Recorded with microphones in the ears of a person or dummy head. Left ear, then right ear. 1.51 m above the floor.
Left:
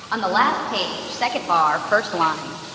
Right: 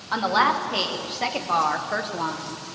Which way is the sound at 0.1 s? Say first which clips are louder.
Left 2 dB; 5° left (ahead or behind).